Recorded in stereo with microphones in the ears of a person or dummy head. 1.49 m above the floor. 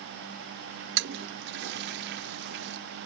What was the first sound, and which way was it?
A toilet flushing, 60° right (ahead or behind).